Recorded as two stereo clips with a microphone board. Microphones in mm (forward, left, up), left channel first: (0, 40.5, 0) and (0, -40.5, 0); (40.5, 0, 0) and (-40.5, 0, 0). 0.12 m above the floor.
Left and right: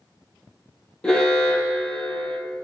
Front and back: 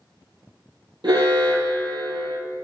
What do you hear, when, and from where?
1.0 s an alarm: 170° left, 2.5 m